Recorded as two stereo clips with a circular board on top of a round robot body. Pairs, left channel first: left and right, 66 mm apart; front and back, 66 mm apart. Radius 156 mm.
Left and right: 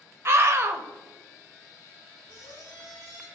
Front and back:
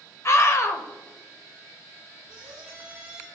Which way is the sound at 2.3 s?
115° left.